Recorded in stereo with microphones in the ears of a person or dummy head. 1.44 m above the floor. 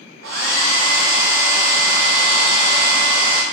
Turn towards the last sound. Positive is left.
turn(degrees=-70)  # may be behind; listen again after turning